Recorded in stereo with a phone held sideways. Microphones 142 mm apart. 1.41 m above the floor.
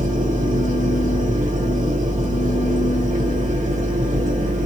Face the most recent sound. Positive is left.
turn(degrees=-60)  # may be behind; listen again after turning